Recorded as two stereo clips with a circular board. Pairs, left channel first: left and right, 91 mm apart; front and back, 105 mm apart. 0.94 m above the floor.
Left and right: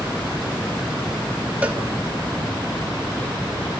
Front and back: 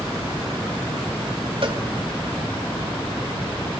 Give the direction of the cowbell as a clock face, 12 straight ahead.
5 o'clock.